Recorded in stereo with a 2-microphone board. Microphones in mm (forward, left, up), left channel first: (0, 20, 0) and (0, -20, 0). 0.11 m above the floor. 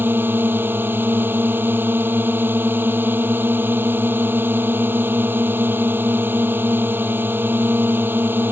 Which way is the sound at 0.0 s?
60° right (ahead or behind).